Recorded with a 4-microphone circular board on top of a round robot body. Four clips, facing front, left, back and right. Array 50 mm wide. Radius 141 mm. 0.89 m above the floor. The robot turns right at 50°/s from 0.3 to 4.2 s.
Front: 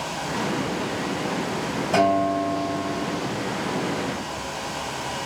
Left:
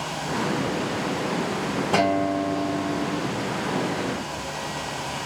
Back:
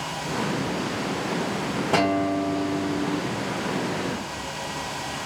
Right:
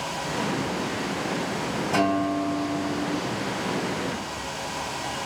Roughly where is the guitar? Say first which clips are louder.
Left 1 dB, front 3 dB; behind left.